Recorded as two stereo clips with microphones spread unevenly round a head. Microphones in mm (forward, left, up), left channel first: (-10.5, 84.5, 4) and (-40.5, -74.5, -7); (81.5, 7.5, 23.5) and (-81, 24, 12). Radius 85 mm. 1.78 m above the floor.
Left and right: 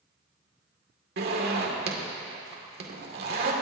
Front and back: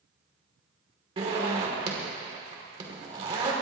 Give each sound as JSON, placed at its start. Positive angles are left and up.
{"t": 1.2, "sound": "a zipper", "azimuth_deg": -125, "distance_m": 2.0}